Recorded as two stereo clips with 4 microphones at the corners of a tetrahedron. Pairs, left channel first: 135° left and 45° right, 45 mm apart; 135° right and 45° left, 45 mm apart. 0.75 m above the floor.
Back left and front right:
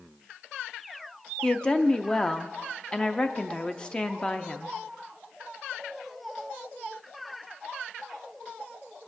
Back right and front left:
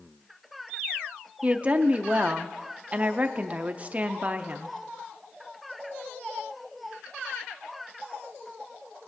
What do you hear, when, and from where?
1.4 s a woman speaking: 80° left, 0.6 m